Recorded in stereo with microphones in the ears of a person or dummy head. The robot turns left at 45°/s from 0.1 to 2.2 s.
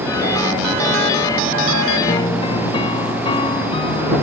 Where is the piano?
35° left (ahead or behind); by 4.2 s 30° left (ahead or behind).